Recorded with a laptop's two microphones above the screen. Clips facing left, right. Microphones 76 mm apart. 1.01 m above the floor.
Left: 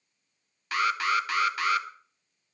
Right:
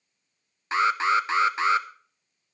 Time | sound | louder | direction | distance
0.7 | an alarm | right 4 dB | 25° right (ahead or behind) | 0.9 m